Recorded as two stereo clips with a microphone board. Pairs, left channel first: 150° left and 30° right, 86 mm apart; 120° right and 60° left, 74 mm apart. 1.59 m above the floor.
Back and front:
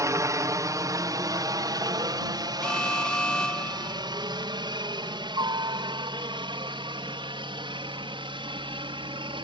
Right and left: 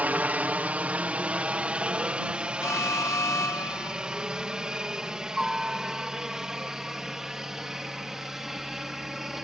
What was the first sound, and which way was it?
A helicopter, straight ahead.